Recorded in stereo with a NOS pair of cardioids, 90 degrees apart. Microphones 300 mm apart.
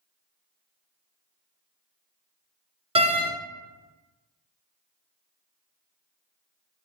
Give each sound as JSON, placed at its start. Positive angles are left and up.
{"t": 3.0, "sound": "a door slam", "azimuth_deg": -20, "distance_m": 0.6}